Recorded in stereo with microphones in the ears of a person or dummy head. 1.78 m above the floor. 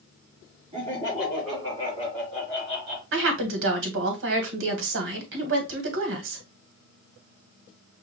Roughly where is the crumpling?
I don't hear crumpling.